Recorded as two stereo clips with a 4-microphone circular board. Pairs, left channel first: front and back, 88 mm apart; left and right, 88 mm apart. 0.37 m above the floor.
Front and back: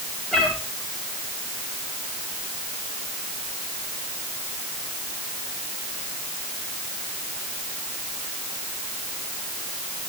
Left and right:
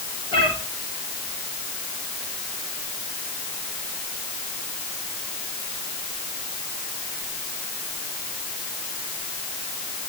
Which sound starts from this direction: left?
A cat meowing, at 0.3 s.